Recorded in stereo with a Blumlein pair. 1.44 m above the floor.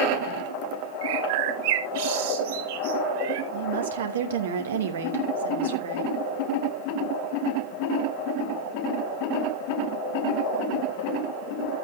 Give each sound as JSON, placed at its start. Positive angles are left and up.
{"t": 1.0, "sound": "a bird", "azimuth_deg": -50, "distance_m": 4.5}
{"t": 3.5, "sound": "a woman speaking", "azimuth_deg": -60, "distance_m": 2.5}